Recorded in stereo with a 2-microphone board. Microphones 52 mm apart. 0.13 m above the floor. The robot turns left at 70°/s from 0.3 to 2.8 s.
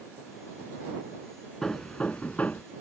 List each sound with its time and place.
1.6 s hammering: 10° left (ahead or behind); by 2.6 s 30° left (ahead or behind)